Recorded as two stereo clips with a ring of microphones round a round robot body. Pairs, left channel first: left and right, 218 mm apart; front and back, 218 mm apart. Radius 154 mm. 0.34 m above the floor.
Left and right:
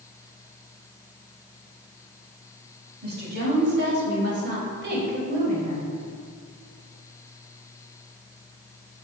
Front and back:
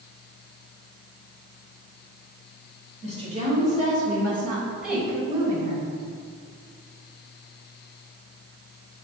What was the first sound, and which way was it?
A woman speaking, 55° right.